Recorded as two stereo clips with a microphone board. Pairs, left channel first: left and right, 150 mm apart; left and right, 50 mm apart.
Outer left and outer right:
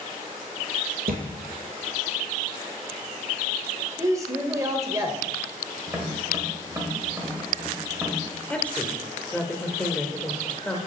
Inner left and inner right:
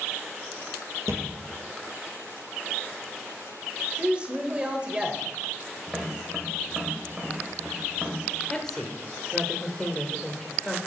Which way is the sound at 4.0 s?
20° right (ahead or behind).